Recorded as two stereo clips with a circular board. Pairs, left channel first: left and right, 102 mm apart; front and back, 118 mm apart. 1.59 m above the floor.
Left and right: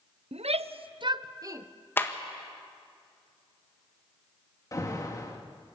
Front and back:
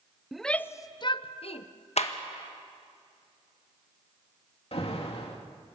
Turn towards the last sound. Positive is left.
turn(degrees=35)